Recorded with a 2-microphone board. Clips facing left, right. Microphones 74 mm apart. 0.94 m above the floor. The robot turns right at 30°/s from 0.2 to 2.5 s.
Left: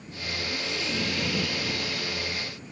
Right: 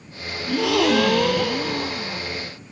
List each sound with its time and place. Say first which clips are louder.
0.5 s a gasp: right 17 dB; 90° right; by 2.3 s 35° right